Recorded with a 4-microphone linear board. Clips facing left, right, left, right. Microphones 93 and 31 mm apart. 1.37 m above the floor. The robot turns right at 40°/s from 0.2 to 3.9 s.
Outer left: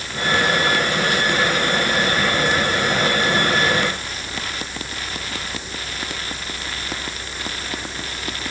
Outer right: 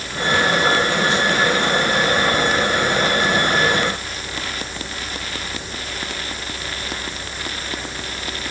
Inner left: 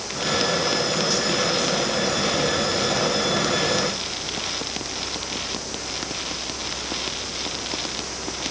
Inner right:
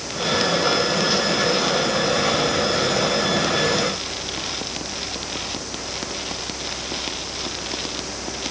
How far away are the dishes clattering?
I don't hear dishes clattering.